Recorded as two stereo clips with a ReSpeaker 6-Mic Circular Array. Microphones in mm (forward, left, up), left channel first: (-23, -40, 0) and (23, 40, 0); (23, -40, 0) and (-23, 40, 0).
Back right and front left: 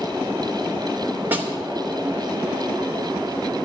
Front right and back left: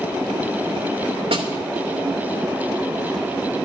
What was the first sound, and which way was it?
A snare drum, 130° left.